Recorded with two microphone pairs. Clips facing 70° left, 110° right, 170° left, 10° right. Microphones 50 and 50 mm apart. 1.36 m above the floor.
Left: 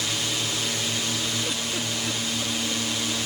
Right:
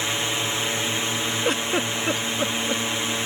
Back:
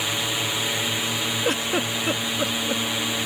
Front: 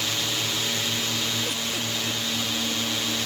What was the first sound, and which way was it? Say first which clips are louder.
A drone: right 3 dB, back 2 dB; 130° right.